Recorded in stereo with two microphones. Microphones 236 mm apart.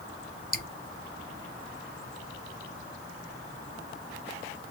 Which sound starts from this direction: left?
Dripping, at 0.5 s.